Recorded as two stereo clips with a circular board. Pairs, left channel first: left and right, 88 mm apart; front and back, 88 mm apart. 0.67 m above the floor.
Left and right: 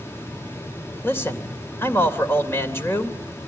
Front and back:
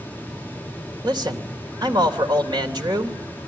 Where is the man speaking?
150° left, 3 m.